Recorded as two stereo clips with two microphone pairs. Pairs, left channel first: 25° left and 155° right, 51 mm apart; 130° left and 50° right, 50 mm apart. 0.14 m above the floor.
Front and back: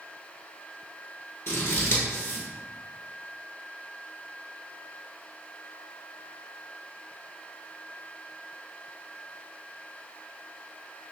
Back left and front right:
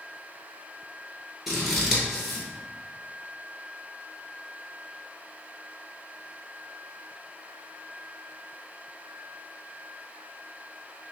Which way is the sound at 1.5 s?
35° left.